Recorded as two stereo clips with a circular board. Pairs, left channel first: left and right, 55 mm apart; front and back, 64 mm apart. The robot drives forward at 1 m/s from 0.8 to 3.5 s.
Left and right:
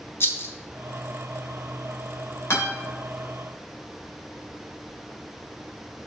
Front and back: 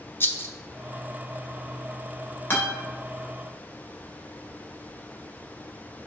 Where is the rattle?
50° left, 0.8 m.